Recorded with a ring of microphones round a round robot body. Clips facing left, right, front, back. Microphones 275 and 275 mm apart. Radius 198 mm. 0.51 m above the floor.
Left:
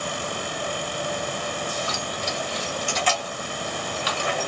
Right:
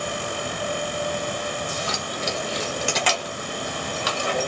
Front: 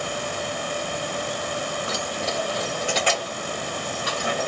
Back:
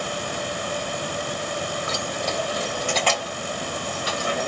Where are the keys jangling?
115° right, 1.2 m; by 4.5 s 40° right, 1.6 m.